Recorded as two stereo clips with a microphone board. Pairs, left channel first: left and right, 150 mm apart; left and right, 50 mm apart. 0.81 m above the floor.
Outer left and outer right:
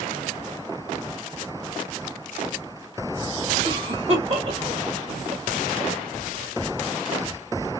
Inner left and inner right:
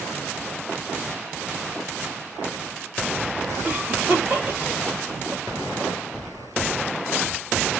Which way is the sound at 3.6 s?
40° right (ahead or behind).